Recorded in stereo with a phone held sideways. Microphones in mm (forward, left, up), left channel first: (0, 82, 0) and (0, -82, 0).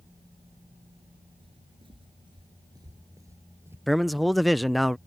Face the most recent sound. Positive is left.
turn(degrees=0)  # may be behind; listen again after turning